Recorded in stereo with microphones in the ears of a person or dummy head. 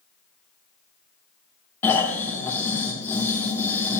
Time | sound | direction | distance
1.8 | snoring | 15° left (ahead or behind) | 1.9 m